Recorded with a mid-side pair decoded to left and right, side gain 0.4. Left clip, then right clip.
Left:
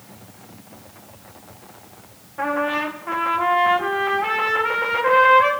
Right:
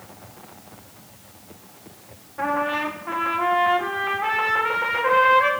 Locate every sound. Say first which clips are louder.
2.4 s a trumpet: left 1 dB; 15° left, 2.0 m